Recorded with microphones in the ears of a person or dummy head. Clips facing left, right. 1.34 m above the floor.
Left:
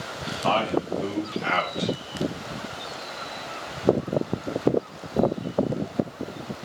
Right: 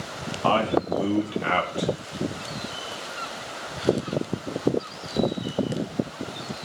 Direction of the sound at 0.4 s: 55° right (ahead or behind).